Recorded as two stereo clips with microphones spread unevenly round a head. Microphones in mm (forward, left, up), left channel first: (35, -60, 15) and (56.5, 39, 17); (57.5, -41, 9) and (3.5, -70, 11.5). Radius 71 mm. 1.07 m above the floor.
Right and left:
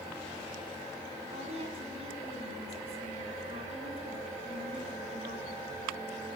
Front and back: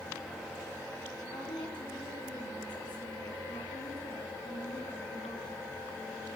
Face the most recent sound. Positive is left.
turn(degrees=50)